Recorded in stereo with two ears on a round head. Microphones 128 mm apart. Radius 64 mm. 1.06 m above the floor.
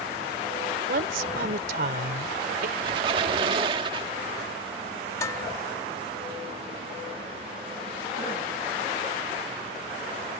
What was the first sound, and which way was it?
A woman speaking, 70° right (ahead or behind).